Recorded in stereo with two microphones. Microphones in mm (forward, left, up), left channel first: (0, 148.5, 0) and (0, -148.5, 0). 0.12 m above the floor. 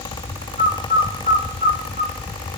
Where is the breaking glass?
I don't hear breaking glass.